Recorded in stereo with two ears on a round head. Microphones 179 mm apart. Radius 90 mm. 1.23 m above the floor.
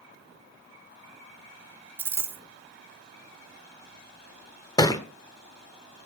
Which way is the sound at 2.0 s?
10° right (ahead or behind).